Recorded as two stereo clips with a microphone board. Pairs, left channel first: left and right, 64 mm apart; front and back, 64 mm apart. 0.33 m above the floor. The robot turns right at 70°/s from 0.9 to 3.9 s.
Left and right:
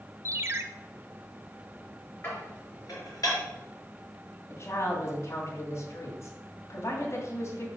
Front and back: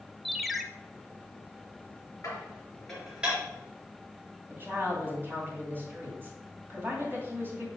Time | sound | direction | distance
0.2 | a ringtone | 90° right | 0.6 m
2.2 | dishes clattering | 35° left | 3.5 m
4.5 | a woman speaking | 125° left | 2.5 m